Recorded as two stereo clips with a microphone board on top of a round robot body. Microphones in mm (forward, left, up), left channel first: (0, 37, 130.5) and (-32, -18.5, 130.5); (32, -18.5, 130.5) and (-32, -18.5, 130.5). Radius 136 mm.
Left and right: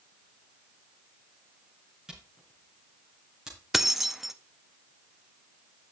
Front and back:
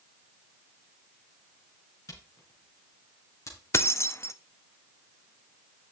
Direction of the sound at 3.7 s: 35° right.